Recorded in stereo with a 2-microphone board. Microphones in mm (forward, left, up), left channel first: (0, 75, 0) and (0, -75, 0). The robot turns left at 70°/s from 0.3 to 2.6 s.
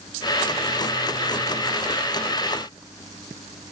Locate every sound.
Only background noise.